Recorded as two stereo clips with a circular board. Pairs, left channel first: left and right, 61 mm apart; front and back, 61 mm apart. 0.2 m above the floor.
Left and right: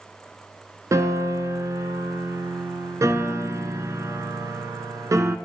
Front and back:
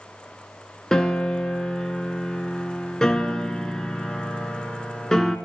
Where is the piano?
80° right, 0.9 m.